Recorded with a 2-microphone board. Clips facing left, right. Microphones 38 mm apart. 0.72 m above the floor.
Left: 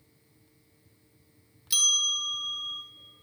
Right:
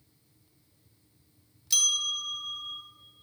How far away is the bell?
About 1.3 m.